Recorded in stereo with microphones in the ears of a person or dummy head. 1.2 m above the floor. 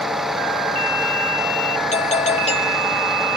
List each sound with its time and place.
0.0 s a vehicle: centre (ahead or behind)
1.9 s a doorbell: 35° left (ahead or behind)